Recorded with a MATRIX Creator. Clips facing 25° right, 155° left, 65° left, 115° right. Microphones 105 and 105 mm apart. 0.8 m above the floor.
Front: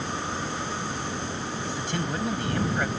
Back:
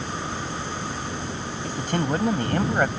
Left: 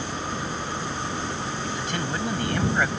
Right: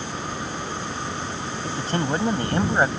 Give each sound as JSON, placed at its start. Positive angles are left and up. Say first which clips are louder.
{"t": 1.6, "sound": "a man speaking", "louder": "back 7 dB, right 8 dB", "azimuth_deg": -165}